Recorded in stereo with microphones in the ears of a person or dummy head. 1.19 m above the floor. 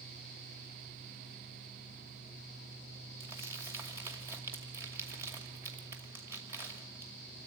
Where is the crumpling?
15° right (ahead or behind), 2.5 m.